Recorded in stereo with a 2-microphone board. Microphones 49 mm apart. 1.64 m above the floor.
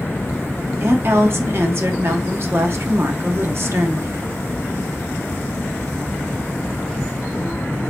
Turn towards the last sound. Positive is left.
turn(degrees=-55)  # may be behind; listen again after turning